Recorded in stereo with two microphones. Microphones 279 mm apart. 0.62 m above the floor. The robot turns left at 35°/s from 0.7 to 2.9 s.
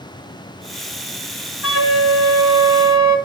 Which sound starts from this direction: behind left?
A flute, at 1.6 s.